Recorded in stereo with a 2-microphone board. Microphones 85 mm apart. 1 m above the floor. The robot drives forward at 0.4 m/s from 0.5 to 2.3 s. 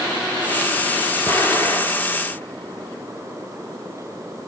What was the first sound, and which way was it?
An explosion, 25° left (ahead or behind).